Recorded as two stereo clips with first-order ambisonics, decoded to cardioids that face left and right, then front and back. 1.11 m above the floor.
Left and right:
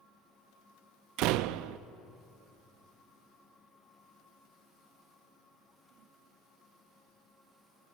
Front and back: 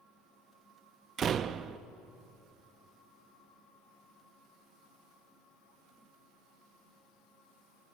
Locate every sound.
1.2 s a door slam: 115° right, 0.7 m